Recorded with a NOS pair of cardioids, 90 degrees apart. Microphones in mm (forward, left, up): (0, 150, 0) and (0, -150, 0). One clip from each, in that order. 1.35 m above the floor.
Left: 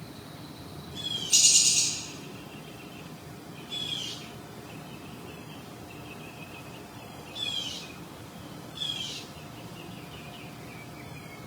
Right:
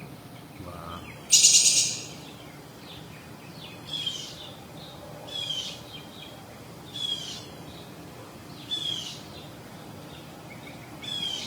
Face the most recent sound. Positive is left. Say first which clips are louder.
# right 3 dB
turn(degrees=-30)